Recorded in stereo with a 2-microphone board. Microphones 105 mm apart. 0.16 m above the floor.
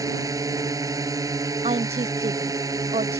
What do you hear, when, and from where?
0.0 s a drone: 30° right (ahead or behind)
1.6 s a woman speaking: 75° right (ahead or behind)